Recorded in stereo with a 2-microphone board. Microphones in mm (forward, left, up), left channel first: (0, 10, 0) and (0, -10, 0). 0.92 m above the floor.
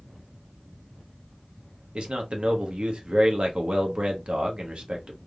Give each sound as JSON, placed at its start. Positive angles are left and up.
{"t": 1.9, "sound": "a man speaking", "side_deg": -65, "distance_m": 0.8}